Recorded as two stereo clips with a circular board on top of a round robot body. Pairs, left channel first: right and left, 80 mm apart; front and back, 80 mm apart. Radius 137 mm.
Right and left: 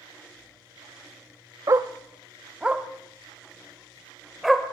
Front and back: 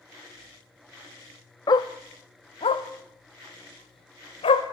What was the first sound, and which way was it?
A dog barking, 40° left.